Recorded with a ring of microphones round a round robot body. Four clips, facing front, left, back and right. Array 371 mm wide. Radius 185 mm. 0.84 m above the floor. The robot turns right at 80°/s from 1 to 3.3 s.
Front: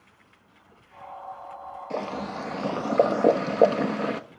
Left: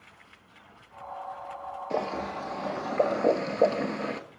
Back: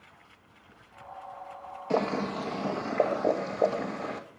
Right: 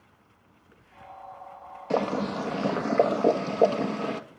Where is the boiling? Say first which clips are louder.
Right 5 dB, back 4 dB; 120° right, 1.5 m; by 4.2 s 10° right, 1.5 m.